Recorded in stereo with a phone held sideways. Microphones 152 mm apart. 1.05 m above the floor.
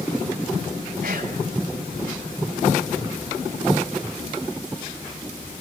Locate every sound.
1.0 s whispering: 70° right (ahead or behind), 7 m